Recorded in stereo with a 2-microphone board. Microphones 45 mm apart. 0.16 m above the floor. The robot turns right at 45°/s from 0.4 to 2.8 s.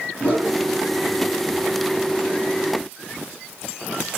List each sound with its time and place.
0.2 s a whoosh: 20° right (ahead or behind), 1.8 m; by 0.6 s 15° right (ahead or behind), 1.8 m